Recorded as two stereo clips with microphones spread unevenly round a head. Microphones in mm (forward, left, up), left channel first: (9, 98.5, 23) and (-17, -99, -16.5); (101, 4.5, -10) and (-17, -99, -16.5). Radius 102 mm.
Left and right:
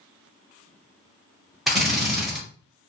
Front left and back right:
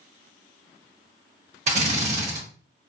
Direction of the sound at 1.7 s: 175° right.